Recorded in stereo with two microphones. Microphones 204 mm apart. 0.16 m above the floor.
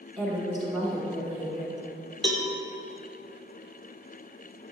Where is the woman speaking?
Centre (ahead or behind), 1.2 m.